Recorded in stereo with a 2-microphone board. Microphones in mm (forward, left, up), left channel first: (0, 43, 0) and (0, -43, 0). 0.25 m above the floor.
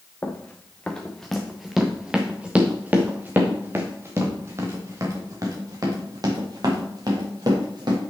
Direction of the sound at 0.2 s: 20° left (ahead or behind).